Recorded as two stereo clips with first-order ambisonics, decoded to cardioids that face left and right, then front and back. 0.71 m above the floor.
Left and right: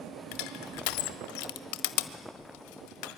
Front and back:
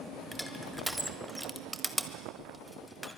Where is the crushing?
90° left, 1.4 m.